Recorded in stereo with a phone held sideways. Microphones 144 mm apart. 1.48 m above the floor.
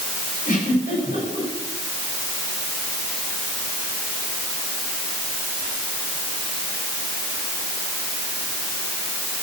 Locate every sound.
0.5 s a giggle: 70° left (ahead or behind), 9 m